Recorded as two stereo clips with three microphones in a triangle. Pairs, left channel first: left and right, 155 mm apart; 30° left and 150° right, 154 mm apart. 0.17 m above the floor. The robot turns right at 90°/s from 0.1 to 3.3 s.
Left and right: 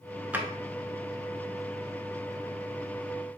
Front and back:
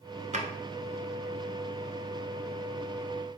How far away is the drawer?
About 0.6 m.